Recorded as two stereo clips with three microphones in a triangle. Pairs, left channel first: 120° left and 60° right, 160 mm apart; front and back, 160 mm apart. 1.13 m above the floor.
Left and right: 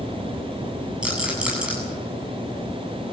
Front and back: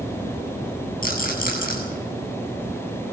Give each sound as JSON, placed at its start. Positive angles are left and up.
{"t": 1.0, "sound": "a rattle", "azimuth_deg": 25, "distance_m": 8.5}